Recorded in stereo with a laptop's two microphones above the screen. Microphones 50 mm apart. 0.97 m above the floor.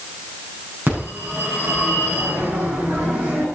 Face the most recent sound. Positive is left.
turn(degrees=-45)  # may be behind; listen again after turning